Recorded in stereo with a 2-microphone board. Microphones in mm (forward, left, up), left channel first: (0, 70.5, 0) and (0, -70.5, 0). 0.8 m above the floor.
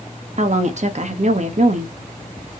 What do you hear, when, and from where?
0.4 s a woman speaking: 55° right (ahead or behind), 0.8 m